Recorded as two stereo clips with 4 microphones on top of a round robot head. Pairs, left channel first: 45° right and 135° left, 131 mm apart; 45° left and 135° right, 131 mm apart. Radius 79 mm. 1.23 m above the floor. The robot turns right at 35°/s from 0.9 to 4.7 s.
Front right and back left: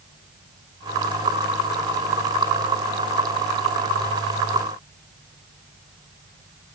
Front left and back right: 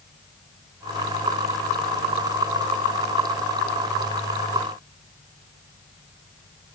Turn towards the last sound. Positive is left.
No sound to turn to.